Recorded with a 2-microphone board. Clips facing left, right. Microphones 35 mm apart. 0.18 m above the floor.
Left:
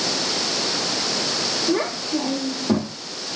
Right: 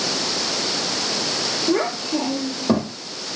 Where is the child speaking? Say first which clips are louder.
Right 3 dB; 60° right (ahead or behind), 3 m.